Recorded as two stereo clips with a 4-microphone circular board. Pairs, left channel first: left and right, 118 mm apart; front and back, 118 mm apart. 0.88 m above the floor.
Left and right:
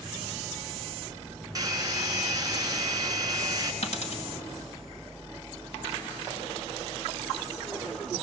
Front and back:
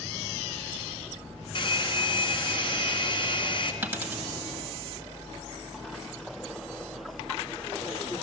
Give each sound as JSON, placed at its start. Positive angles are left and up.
{"t": 1.6, "sound": "a hair dryer", "azimuth_deg": -35, "distance_m": 1.5}
{"t": 3.8, "sound": "a dropped coin", "azimuth_deg": 105, "distance_m": 1.8}